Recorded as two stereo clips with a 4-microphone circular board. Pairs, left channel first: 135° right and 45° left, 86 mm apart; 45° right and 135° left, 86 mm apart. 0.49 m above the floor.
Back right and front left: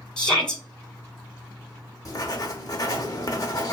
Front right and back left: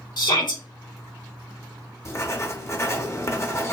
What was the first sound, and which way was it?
A shout, 55° right.